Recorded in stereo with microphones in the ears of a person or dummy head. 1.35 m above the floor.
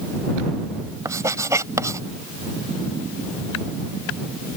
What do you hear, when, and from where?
1.1 s writing: 15° right (ahead or behind)